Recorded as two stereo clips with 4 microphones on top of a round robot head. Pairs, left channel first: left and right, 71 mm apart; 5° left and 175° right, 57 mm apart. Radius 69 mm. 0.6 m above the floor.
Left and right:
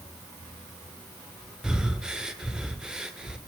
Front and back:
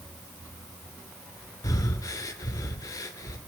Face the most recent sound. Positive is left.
turn(degrees=-10)